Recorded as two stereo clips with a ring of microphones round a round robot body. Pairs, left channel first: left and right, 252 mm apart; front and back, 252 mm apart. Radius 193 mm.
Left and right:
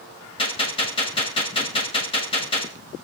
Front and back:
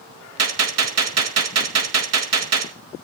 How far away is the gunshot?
About 2.0 m.